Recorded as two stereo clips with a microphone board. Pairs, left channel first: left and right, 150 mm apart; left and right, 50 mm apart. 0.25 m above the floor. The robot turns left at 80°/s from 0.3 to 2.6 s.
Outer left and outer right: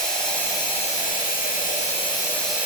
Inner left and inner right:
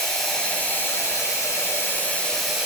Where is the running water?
175° left, 1.9 m; by 2.7 s 10° right, 1.9 m.